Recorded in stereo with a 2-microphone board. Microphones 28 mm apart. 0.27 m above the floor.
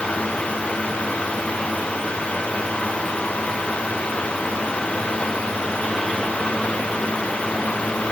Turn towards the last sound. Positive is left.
No sound to turn to.